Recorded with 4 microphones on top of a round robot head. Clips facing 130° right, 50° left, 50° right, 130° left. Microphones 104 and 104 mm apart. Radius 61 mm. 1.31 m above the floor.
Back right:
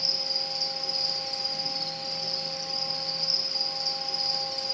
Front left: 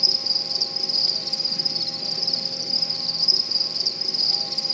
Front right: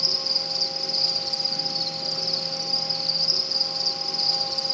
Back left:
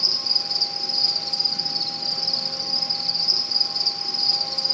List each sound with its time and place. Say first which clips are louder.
0.0 s an insect: front left 1 dB, front right 2 dB; 35° left, 0.9 m